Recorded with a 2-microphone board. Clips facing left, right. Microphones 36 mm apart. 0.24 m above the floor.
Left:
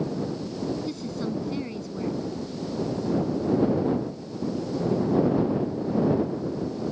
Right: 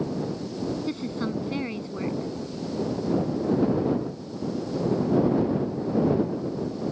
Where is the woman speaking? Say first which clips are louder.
Right 1 dB; 35° right (ahead or behind).